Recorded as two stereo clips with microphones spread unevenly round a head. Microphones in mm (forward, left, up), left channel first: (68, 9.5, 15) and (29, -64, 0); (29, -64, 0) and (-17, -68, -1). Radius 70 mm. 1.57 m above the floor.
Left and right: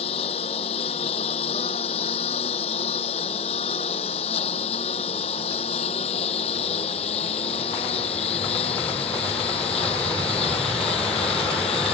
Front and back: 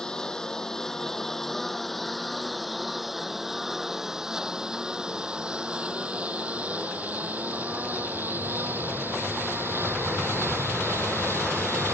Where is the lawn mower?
90° left; by 11.9 s 115° left.